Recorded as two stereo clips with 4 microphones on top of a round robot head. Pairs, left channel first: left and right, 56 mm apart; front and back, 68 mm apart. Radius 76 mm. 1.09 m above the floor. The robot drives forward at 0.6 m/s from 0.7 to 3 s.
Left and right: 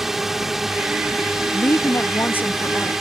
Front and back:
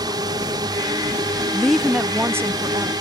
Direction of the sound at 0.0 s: 175° right.